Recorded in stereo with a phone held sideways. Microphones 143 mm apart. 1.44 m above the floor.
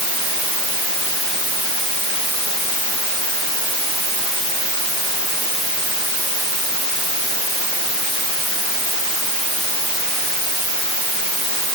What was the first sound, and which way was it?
Only background noise.